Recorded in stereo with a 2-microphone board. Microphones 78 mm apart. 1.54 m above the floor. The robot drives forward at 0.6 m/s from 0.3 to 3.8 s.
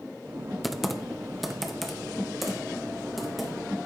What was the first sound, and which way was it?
Typing on a keyboard, centre (ahead or behind).